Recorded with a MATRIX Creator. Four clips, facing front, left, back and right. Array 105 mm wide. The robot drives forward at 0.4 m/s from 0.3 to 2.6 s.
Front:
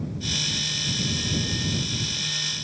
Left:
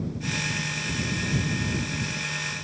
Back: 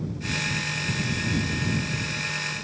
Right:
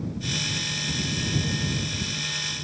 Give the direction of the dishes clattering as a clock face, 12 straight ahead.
No dishes clattering in this recording.